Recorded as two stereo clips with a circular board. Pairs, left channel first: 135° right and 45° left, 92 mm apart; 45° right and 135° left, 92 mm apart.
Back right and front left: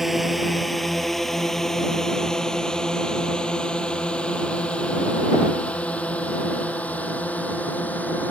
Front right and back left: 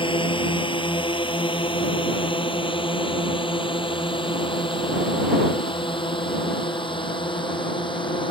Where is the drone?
45° right; by 8.3 s 65° right.